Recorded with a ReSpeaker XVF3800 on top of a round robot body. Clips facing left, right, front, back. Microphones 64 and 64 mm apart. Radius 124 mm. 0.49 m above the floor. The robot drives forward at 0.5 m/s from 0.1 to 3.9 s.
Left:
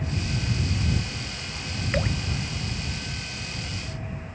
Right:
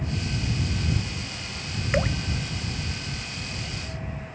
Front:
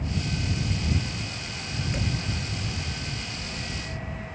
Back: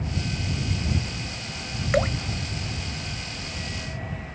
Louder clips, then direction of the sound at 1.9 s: Right 3 dB, back 11 dB; 165° right.